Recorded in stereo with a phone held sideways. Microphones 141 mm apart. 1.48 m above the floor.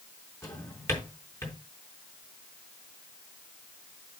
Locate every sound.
0.4 s a drawer: 20° left (ahead or behind), 4 m